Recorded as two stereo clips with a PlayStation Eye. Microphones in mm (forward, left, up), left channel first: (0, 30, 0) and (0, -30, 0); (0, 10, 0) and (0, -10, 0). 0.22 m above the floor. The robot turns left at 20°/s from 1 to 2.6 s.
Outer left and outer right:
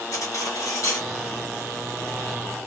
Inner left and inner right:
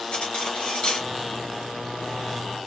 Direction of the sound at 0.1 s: 70° left (ahead or behind).